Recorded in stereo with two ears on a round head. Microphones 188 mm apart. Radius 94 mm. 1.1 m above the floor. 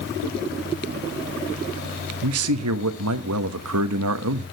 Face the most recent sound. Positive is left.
turn(degrees=-80)